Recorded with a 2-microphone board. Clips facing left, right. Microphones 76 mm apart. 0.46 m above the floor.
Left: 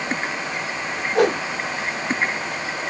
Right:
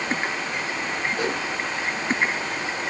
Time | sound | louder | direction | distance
1.1 | a whoosh | left 13 dB | 65° left (ahead or behind) | 0.9 m